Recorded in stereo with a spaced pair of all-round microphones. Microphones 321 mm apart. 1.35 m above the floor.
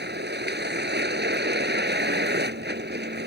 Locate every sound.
0.0 s a vehicle: 30° right (ahead or behind)